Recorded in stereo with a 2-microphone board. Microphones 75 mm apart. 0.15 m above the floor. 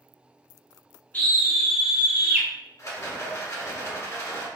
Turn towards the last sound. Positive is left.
turn(degrees=45)  # may be behind; listen again after turning